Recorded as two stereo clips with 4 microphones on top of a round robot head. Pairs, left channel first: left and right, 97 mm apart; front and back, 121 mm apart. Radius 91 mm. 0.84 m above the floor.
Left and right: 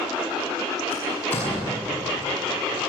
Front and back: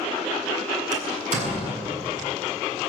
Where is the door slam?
170° left, 7 m.